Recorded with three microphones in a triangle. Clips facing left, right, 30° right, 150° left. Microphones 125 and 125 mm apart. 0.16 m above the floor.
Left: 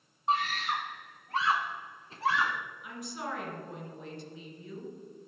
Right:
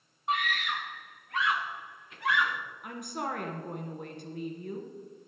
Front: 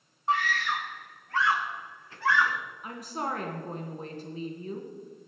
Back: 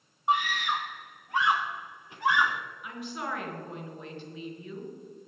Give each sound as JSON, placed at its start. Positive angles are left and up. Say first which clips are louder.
{"t": 0.3, "sound": "a scream", "louder": "left 2 dB, back 1 dB", "azimuth_deg": 95, "distance_m": 1.2}
{"t": 2.8, "sound": "a woman speaking", "louder": "right 5 dB, front 3 dB", "azimuth_deg": -75, "distance_m": 2.0}